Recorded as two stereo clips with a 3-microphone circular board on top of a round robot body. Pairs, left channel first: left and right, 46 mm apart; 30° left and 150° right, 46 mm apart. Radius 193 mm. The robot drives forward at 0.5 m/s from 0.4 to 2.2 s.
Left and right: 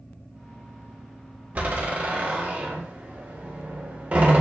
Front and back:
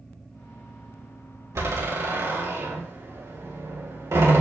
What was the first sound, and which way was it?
A door slam, 150° right.